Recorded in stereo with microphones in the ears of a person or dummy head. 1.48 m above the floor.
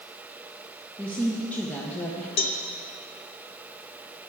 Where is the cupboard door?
No cupboard door in this recording.